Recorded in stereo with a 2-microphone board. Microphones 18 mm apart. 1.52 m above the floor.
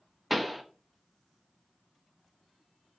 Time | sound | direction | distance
0.3 | a pop | 10° right (ahead or behind) | 0.5 m